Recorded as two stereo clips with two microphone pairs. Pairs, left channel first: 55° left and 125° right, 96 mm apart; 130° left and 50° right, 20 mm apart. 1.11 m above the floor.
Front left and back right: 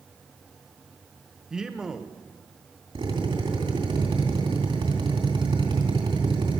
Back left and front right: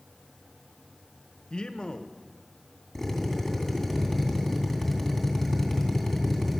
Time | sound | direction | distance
1.5 | a man speaking | 155° left | 1.0 m
3.0 | a drill | 150° right | 2.5 m